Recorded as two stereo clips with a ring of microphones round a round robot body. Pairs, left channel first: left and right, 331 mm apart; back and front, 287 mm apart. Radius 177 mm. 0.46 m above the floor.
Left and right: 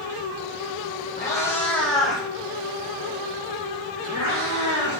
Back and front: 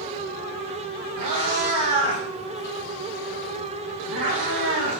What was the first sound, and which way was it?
A cat meowing, 10° left.